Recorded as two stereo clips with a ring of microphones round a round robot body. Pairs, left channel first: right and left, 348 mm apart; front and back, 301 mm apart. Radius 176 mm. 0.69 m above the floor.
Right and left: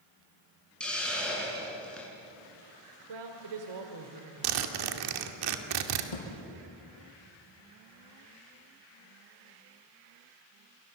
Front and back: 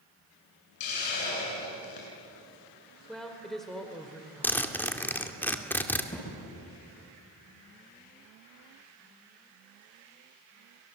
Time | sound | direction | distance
0.8 | a hiss | 5° right | 8 m
3.1 | a woman speaking | 90° left | 2.5 m
4.4 | a zipper | 85° left | 2 m
6.1 | a thud | 80° right | 7 m